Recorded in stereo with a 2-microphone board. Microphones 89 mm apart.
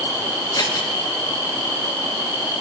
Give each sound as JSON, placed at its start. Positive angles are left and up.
{"t": 0.5, "sound": "scissors", "side_deg": 45, "distance_m": 0.8}